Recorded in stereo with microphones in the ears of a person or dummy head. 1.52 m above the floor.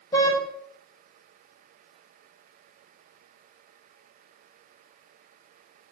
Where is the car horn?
10° left (ahead or behind), 5 m.